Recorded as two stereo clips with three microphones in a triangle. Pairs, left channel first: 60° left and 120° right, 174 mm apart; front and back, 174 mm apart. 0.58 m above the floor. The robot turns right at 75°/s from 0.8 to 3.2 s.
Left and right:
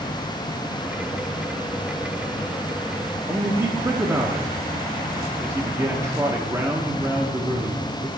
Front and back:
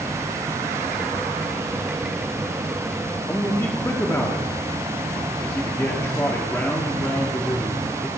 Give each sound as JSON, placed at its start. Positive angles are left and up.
{"t": 3.3, "sound": "a man speaking", "azimuth_deg": -60, "distance_m": 0.9}